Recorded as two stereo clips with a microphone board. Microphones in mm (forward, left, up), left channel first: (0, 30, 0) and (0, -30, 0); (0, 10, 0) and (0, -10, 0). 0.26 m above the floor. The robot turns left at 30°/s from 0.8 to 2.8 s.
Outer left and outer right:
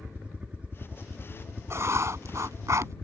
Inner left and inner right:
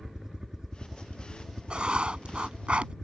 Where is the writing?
65° right; by 2.9 s 95° right.